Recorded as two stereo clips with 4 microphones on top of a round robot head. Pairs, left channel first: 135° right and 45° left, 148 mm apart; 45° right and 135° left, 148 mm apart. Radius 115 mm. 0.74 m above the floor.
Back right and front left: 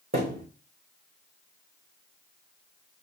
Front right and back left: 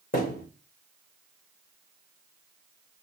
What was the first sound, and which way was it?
A thud, 5° right.